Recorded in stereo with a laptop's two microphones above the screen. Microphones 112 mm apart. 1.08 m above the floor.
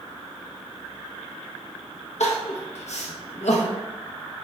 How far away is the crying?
About 0.8 m.